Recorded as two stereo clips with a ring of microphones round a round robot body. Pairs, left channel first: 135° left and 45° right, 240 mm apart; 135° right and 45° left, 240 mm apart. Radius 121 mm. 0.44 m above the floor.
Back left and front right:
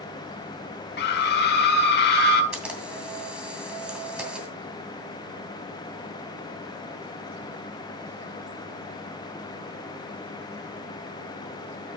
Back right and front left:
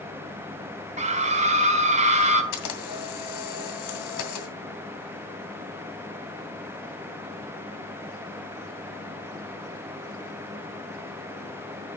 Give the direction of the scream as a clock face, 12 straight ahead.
9 o'clock.